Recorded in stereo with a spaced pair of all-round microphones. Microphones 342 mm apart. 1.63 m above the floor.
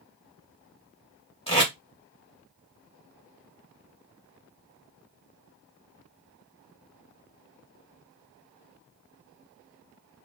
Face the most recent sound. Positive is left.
turn(degrees=15)  # may be behind; listen again after turning